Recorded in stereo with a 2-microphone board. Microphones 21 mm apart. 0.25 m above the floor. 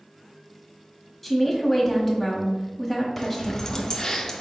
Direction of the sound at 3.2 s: 25° left (ahead or behind).